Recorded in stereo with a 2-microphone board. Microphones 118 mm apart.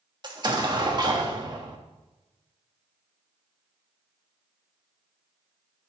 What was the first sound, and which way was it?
An explosion, 40° right (ahead or behind).